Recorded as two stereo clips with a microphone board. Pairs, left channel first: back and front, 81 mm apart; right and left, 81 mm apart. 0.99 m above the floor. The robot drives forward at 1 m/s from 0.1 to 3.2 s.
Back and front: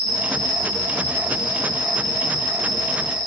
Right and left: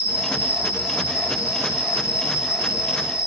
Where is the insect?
160° left, 7 m; by 3.3 s 165° left, 10 m.